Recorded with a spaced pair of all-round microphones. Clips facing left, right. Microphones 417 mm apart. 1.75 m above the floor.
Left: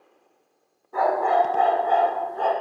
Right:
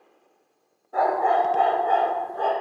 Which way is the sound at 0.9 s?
15° left (ahead or behind).